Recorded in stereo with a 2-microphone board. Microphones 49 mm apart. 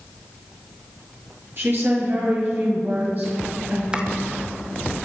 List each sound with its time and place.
1.6 s a woman speaking: 50° right (ahead or behind), 6.5 m; by 3.8 s 40° right (ahead or behind), 8 m
3.9 s chopping: 20° right (ahead or behind), 1.3 m